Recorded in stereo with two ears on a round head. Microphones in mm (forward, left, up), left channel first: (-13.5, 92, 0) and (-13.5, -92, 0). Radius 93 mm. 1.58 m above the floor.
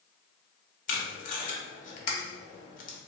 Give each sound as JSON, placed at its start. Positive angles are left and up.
{"t": 0.9, "sound": "tape being pulled", "side_deg": 40, "distance_m": 0.7}